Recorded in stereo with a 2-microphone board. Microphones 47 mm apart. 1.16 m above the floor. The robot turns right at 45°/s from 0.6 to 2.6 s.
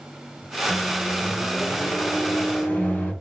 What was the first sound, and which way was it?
A microwave, 35° right.